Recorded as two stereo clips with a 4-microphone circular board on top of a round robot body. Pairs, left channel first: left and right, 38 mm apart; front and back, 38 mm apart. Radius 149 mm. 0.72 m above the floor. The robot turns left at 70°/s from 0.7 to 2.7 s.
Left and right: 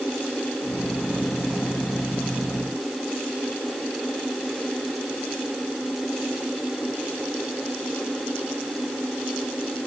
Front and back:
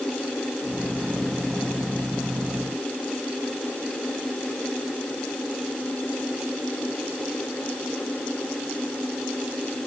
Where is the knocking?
No knocking in this recording.